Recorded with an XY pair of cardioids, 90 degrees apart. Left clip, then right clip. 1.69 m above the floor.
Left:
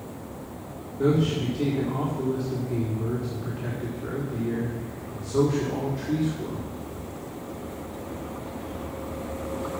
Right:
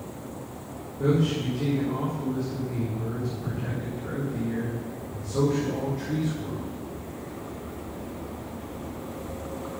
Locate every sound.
1.0 s a man speaking: 55° left, 4 m